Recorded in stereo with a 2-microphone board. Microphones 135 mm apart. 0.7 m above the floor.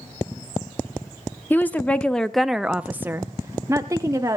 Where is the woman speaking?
15° left (ahead or behind), 0.9 m; by 4.4 s 20° right (ahead or behind), 1.1 m.